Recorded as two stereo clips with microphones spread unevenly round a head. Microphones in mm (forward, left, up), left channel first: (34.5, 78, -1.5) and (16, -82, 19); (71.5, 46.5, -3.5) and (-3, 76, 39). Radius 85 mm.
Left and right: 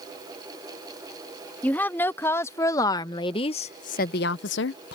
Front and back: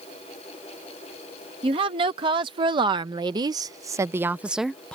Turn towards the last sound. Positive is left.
turn(degrees=70)